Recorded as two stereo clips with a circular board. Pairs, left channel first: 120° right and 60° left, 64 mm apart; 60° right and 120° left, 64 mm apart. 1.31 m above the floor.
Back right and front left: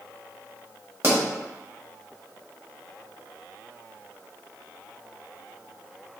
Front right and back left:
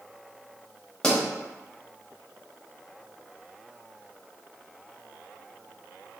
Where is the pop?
20° left, 1.1 m.